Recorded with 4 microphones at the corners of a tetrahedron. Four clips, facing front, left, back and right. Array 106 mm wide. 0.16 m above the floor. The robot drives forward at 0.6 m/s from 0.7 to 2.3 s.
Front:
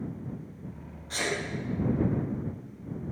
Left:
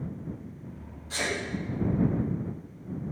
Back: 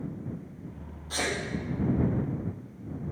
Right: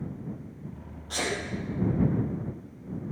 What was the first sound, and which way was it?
A sneeze, 100° right.